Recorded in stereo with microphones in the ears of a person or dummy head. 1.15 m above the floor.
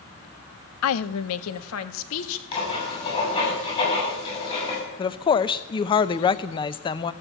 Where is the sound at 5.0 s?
25° left (ahead or behind), 0.7 m.